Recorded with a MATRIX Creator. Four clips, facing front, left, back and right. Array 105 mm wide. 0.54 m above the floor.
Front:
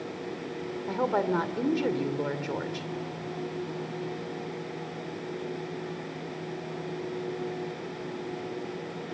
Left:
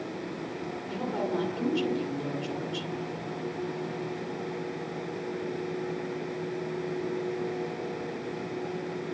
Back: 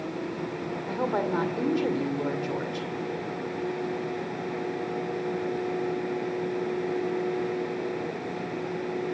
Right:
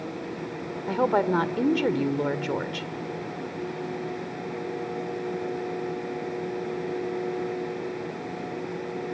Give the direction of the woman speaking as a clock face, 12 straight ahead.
3 o'clock.